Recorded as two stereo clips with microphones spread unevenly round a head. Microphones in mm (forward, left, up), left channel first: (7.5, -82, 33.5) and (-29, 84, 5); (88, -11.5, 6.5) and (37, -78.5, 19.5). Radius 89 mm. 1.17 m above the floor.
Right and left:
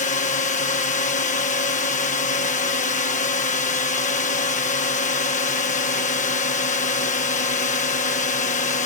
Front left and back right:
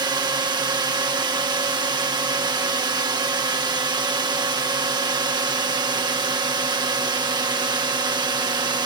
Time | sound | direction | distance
0.0 | a drone | 115° right | ?